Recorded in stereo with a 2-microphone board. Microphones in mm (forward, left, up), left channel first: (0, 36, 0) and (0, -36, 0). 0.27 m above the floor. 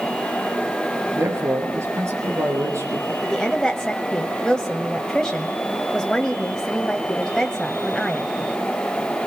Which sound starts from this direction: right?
A man speaking, at 1.1 s.